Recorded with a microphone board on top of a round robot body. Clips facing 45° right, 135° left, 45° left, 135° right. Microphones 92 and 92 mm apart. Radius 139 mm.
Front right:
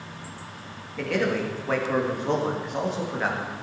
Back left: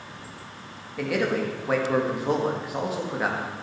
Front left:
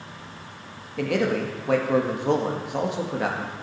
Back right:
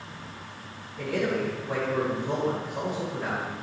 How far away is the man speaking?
About 2 m.